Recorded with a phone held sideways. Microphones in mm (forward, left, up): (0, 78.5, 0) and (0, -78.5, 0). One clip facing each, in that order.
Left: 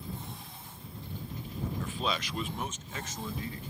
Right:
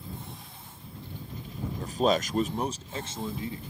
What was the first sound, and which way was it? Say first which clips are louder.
A man speaking: right 11 dB; 40° right (ahead or behind).